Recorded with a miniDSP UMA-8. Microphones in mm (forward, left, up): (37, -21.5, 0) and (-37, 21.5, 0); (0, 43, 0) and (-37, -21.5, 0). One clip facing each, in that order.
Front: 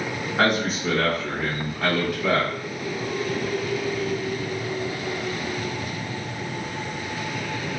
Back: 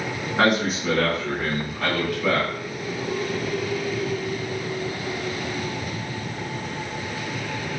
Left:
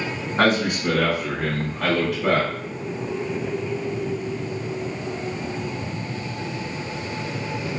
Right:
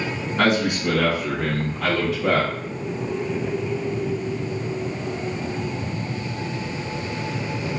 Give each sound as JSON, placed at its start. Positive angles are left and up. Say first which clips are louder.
{"t": 0.4, "sound": "a man speaking", "louder": "back 1 dB, even", "azimuth_deg": 65, "distance_m": 1.2}